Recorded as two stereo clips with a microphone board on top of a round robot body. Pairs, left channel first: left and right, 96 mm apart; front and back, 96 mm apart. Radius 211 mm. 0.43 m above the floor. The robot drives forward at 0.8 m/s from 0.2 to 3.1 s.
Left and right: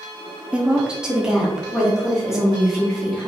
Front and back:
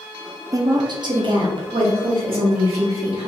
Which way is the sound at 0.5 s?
160° right.